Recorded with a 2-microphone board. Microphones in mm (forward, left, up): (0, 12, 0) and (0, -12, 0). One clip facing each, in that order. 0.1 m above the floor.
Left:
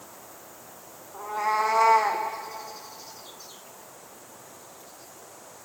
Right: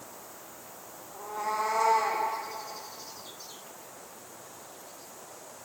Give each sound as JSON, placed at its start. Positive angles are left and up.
{"t": 1.1, "sound": "a cat meowing", "side_deg": 35, "distance_m": 4.0}